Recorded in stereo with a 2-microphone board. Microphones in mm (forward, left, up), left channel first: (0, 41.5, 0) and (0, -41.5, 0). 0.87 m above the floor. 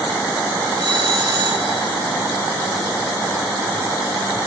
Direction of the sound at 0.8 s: 70° right (ahead or behind).